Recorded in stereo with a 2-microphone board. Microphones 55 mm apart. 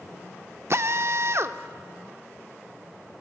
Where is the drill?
55° right (ahead or behind), 0.6 m.